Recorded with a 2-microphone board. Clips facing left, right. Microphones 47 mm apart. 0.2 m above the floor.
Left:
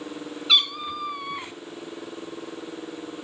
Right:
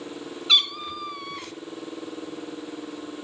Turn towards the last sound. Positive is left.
turn(degrees=25)  # may be behind; listen again after turning